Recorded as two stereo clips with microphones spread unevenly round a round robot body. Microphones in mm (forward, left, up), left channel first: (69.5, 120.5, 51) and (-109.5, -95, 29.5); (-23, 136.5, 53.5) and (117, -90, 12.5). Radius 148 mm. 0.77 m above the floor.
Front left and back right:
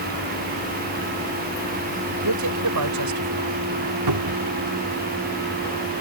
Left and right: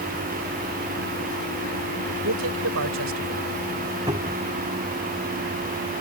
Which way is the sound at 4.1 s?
135° right.